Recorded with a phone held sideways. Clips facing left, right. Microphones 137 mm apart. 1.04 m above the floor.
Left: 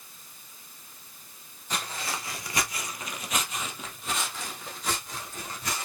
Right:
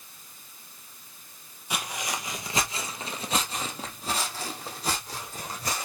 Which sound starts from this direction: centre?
Footsteps, at 1.7 s.